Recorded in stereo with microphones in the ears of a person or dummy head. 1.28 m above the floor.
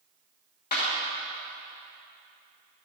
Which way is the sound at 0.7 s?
50° left (ahead or behind).